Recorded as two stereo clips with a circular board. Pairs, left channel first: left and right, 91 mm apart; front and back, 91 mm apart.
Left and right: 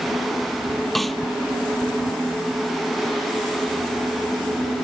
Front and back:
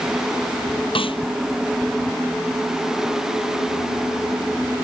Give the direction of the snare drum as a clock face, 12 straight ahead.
12 o'clock.